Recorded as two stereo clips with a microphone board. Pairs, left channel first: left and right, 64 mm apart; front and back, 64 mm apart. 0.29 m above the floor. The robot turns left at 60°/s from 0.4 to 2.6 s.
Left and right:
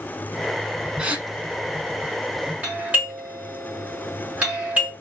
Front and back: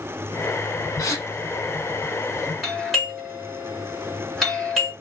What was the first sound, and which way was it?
A gasp, 15° right.